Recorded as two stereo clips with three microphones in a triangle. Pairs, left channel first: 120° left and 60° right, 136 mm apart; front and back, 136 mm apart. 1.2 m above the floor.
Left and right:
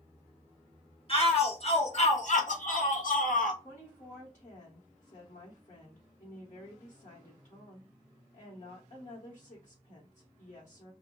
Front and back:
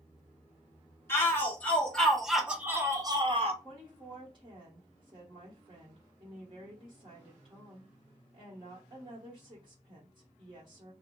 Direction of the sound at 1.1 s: 75° left.